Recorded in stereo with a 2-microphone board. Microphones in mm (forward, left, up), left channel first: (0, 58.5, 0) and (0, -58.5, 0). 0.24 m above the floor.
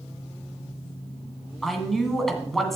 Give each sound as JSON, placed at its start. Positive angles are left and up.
{"t": 1.6, "sound": "a man speaking", "side_deg": 0, "distance_m": 1.8}